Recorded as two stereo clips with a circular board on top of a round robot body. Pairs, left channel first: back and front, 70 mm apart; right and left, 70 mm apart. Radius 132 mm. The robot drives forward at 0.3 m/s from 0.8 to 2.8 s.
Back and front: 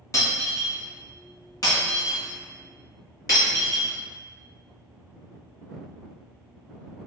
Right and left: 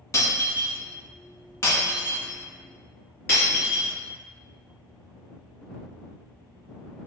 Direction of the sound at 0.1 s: 135° right.